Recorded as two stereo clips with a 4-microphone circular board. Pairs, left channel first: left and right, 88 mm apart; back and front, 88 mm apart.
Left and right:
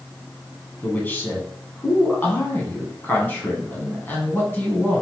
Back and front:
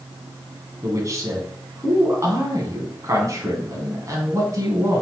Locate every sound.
0.8 s a man speaking: 30° left, 1.6 m